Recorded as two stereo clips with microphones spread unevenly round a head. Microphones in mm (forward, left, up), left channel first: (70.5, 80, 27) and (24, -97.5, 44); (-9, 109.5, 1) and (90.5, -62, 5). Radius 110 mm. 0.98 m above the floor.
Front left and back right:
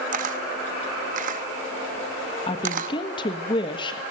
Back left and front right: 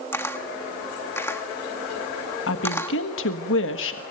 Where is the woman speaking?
135° left, 1.5 m.